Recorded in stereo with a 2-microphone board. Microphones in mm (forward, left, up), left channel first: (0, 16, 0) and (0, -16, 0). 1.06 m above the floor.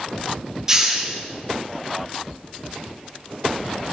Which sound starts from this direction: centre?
A hiss, at 0.7 s.